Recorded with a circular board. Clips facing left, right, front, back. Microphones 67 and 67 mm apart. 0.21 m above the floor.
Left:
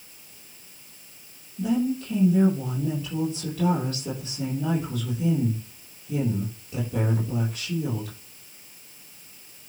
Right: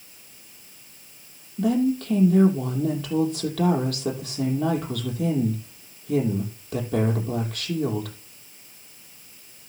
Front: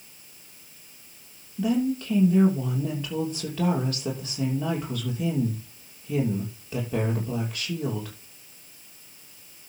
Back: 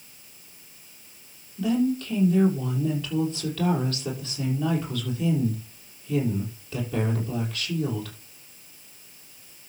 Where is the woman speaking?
75° right, 6 m.